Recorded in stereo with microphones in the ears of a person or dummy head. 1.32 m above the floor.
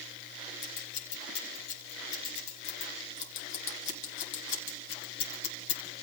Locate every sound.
0.6 s scissors: 75° left (ahead or behind), 4.5 m